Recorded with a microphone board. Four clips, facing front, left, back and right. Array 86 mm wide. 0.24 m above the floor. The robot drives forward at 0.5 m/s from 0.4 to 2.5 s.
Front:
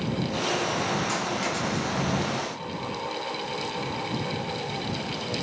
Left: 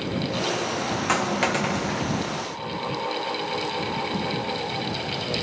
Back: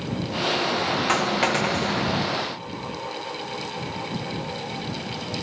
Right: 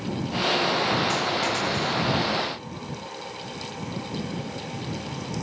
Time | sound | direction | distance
1.1 | a dropped coin | 135° left | 1.0 m